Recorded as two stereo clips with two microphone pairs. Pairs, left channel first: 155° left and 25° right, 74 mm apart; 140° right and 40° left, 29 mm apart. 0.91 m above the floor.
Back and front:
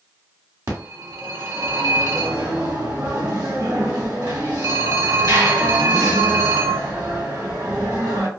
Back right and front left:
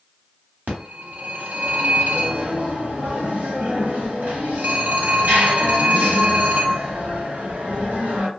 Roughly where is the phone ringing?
Ahead.